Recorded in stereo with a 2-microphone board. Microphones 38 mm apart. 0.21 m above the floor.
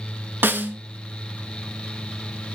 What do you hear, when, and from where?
0.4 s a snare drum: 65° right (ahead or behind), 0.7 m